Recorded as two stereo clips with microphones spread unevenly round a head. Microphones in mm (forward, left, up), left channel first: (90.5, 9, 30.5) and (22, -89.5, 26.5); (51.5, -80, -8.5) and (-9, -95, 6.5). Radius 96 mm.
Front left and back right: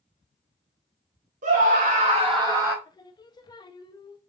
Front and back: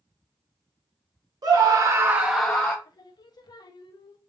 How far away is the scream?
About 1.5 m.